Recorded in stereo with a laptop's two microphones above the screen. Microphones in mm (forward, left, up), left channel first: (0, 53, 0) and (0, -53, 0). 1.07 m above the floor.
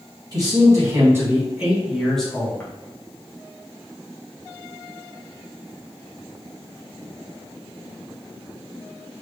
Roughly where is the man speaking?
Right.